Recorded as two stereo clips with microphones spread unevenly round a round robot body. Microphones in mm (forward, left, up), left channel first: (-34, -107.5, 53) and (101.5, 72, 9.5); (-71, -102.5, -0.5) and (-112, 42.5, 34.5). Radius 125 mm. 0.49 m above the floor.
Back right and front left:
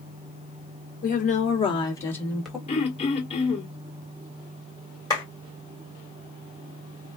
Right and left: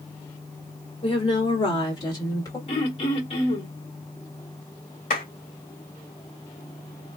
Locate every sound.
1.0 s a woman speaking: 80° right, 1.9 m; by 2.6 s 25° right, 1.8 m
2.7 s throat clearing: 60° right, 1.8 m
5.1 s a clap: 50° right, 1.7 m